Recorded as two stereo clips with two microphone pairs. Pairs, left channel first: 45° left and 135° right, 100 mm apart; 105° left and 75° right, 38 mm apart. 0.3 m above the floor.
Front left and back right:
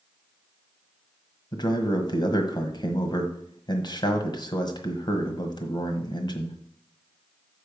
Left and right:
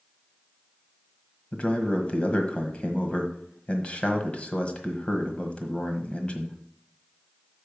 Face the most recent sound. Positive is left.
turn(degrees=60)